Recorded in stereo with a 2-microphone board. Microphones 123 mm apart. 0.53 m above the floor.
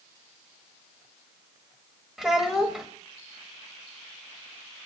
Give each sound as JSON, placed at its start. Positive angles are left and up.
{"t": 2.2, "sound": "a child speaking", "side_deg": -5, "distance_m": 1.3}